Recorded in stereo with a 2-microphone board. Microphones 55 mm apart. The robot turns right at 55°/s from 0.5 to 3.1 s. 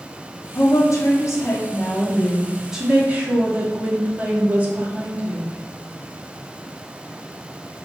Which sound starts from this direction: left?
A woman speaking, at 0.6 s.